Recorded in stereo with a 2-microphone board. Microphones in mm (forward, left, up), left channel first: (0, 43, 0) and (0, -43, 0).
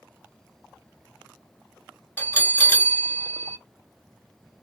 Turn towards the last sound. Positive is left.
turn(degrees=20)  # may be behind; listen again after turning